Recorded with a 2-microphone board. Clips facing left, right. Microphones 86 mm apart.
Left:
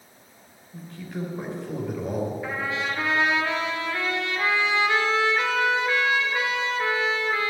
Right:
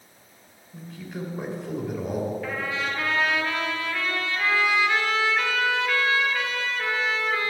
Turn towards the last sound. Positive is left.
turn(degrees=20)  # may be behind; listen again after turning